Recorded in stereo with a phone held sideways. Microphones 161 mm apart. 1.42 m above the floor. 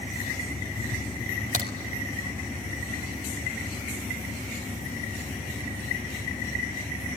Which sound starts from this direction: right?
A crack, at 1.5 s.